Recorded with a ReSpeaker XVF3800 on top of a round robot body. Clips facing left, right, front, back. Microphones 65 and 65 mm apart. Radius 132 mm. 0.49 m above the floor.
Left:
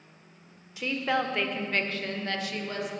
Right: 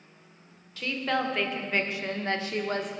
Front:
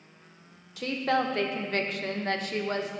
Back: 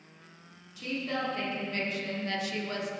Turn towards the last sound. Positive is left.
turn(degrees=-55)